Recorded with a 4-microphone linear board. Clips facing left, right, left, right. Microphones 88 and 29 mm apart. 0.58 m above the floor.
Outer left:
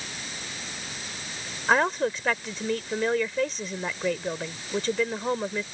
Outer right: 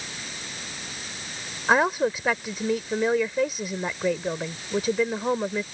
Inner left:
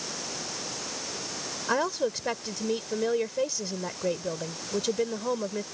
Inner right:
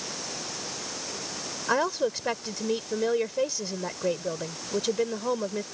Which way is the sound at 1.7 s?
10° right (ahead or behind).